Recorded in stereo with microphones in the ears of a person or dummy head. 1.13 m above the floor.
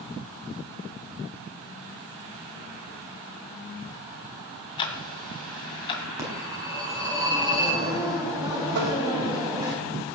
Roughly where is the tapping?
Right.